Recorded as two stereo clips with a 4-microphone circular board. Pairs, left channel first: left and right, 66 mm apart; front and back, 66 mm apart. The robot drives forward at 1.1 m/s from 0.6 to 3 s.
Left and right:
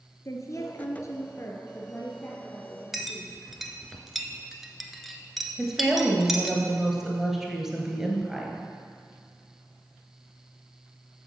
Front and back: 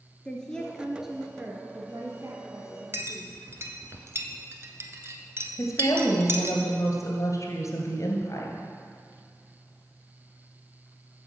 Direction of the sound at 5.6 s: 10° right.